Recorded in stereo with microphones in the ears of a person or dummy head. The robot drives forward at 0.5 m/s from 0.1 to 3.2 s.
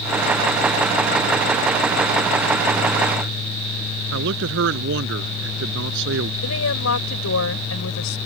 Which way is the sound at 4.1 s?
70° right (ahead or behind).